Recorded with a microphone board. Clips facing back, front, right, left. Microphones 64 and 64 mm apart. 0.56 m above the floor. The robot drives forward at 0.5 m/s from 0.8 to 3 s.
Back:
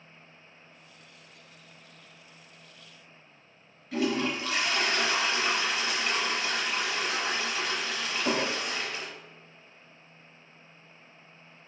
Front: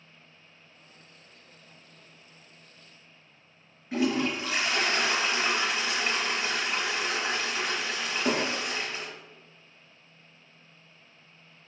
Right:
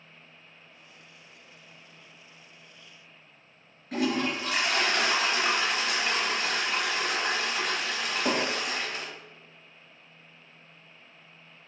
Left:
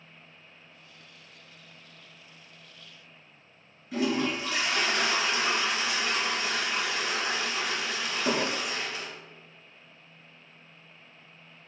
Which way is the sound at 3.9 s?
70° right.